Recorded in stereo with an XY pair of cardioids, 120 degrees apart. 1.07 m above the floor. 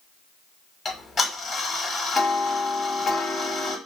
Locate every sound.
0.8 s ticking: 30° left, 1.3 m